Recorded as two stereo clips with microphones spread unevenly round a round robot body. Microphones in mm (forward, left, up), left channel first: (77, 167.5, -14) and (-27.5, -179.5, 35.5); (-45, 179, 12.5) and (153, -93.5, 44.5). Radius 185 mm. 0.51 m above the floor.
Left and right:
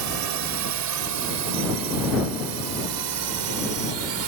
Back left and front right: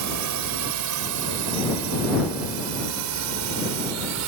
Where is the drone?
85° right.